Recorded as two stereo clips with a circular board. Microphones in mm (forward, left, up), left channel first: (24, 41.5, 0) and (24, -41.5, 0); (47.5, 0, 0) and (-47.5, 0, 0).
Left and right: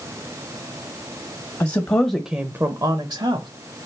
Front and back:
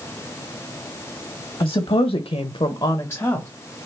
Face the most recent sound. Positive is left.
turn(degrees=-75)